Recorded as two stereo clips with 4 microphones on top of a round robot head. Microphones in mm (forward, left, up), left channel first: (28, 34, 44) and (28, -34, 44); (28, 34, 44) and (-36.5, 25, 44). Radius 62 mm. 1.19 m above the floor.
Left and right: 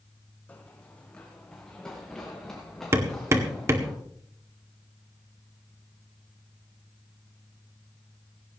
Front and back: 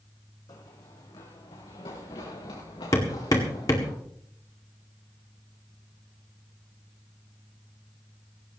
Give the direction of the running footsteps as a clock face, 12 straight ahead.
11 o'clock.